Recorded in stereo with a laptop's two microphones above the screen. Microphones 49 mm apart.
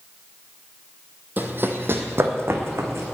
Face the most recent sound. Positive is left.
turn(degrees=-60)  # may be behind; listen again after turning